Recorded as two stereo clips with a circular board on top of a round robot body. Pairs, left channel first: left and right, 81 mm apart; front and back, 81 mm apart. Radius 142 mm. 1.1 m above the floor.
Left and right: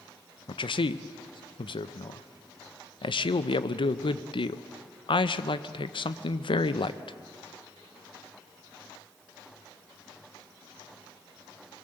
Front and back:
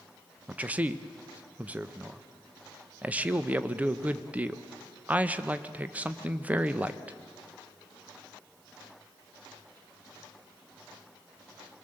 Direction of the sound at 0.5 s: 105° left.